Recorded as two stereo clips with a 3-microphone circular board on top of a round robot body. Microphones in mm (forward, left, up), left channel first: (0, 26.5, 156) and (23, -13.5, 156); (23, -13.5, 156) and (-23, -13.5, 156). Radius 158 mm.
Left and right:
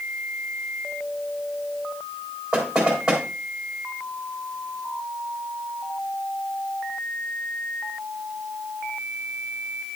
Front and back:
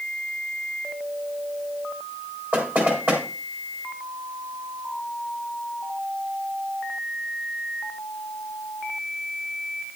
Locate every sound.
2.5 s knocking: 135° right, 3.5 m